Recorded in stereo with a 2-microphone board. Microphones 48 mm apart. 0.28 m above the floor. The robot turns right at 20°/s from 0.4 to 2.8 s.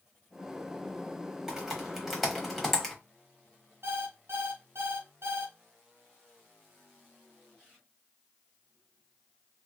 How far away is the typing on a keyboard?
About 1.0 m.